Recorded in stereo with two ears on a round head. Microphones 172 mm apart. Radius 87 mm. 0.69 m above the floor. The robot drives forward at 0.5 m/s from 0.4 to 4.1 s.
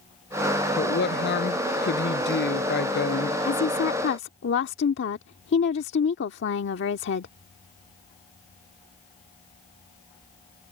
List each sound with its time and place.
0.8 s a woman speaking: 65° left (ahead or behind); by 3.4 s 60° left (ahead or behind)
3.5 s a woman speaking: 65° left (ahead or behind)